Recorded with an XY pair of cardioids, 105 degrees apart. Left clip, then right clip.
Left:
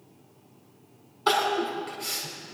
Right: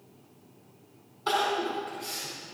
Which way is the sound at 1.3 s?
45° left.